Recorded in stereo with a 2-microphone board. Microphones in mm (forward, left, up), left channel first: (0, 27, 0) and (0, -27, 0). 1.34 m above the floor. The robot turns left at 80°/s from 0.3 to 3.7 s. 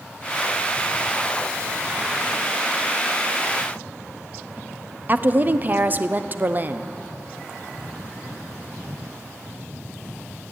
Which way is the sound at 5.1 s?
35° right (ahead or behind).